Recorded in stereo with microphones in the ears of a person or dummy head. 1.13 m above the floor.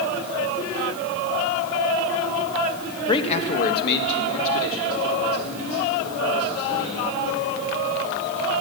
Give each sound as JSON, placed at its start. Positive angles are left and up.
{"t": 3.1, "sound": "a man speaking", "side_deg": 25, "distance_m": 1.0}